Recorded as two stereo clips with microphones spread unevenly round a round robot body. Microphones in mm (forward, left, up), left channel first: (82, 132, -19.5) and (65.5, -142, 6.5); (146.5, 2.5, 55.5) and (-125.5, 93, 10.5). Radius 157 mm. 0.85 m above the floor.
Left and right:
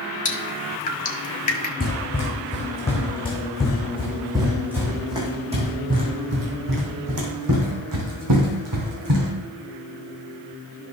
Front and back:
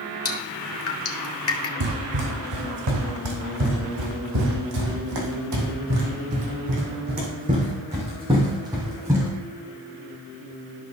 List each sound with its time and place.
0.2 s dripping: 25° left, 1.4 m
1.8 s running footsteps: 150° left, 3.5 m; by 9.3 s 115° right, 3.5 m